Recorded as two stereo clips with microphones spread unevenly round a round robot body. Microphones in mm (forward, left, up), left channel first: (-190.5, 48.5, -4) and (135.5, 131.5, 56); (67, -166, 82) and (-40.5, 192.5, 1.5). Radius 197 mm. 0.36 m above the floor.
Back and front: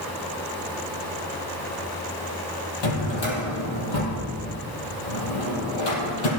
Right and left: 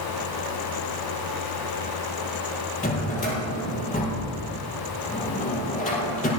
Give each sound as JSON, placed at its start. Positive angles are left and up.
{"t": 2.8, "sound": "a drawer", "azimuth_deg": -145, "distance_m": 6.0}